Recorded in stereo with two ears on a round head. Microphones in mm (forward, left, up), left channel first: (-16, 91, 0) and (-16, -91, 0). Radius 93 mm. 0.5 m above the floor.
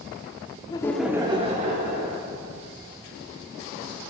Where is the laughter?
25° left (ahead or behind), 0.7 m; by 2.2 s 50° right (ahead or behind), 1.5 m.